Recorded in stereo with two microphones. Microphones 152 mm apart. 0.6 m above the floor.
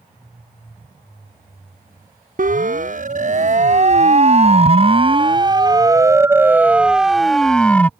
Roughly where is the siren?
Right.